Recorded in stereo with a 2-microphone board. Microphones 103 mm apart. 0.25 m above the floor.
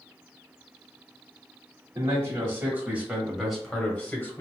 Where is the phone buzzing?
I don't hear a phone buzzing.